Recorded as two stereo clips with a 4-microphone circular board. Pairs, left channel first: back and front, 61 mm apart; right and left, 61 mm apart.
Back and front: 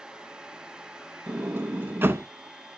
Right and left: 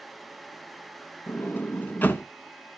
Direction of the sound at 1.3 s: 40° right.